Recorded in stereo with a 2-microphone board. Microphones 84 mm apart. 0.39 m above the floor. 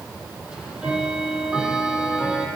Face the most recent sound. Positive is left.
turn(degrees=-10)  # may be behind; listen again after turning